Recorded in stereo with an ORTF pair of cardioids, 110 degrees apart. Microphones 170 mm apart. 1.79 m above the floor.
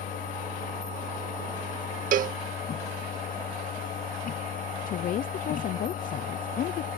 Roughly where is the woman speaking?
Ahead left.